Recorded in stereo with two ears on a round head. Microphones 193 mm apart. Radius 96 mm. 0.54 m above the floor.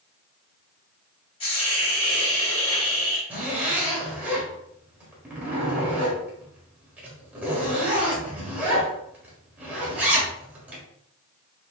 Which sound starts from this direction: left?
A hiss, at 1.4 s.